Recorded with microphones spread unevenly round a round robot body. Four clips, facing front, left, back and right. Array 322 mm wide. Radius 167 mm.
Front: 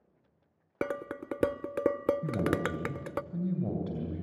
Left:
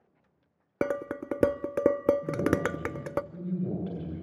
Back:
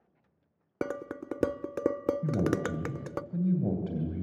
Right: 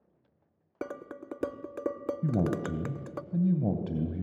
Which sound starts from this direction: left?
Dishes clattering, at 0.8 s.